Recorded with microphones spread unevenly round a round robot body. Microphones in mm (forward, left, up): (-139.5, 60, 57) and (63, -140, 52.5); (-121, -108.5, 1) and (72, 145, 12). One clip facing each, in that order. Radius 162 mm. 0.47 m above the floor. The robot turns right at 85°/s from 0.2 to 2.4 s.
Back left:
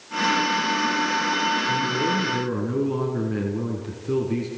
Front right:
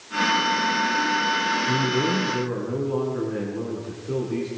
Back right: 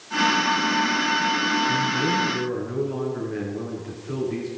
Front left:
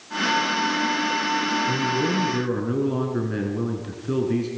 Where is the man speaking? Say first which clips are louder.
Front right 5 dB, front left 2 dB; 15° left, 5 m; by 4.5 s 80° left, 5 m.